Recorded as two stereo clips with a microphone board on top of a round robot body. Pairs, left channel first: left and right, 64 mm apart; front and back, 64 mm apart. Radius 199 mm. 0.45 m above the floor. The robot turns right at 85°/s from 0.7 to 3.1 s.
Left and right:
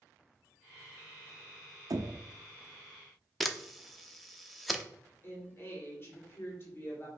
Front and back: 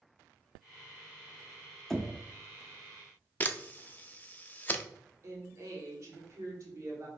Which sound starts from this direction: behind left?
A woman speaking, at 5.2 s.